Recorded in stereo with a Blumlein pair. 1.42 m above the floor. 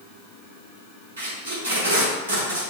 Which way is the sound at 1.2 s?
65° right.